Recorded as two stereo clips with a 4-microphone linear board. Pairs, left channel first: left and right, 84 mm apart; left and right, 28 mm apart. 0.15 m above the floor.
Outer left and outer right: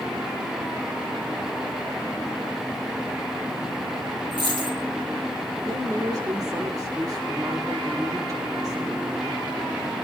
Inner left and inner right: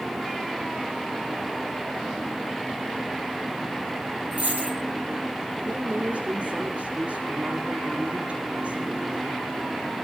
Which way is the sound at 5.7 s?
45° right (ahead or behind).